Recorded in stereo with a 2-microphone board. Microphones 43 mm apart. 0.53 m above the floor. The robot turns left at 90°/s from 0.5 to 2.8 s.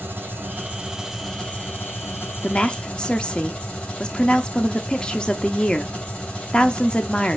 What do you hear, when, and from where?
0.0 s an engine running: 120° right, 3 m; by 7.4 s 35° left, 3 m
2.4 s a woman speaking: 25° left (ahead or behind), 0.8 m; by 7.4 s 20° left (ahead or behind), 0.8 m